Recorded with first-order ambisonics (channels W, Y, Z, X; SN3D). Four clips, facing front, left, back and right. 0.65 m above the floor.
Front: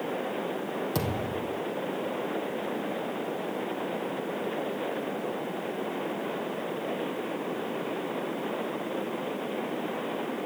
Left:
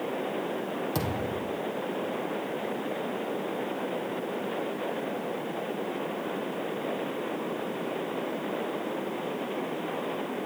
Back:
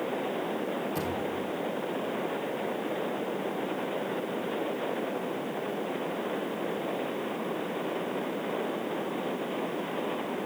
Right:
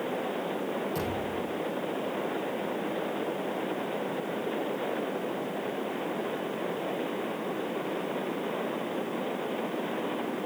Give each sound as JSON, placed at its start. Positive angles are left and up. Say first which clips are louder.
{"t": 0.9, "sound": "a thud", "louder": "left 1 dB, front 1 dB", "azimuth_deg": 35, "distance_m": 4.0}